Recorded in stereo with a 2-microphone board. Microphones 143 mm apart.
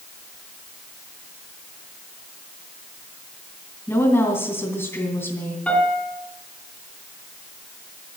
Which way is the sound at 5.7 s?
10° left (ahead or behind).